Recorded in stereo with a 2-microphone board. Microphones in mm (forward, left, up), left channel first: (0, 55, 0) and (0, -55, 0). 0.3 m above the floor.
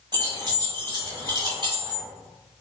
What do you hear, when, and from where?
0.1 s keys jangling: 40° right (ahead or behind), 1.1 m